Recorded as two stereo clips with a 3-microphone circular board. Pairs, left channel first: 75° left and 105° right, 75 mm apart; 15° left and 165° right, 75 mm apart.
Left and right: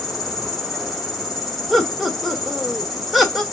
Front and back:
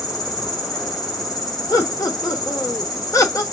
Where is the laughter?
15° right, 1.2 m.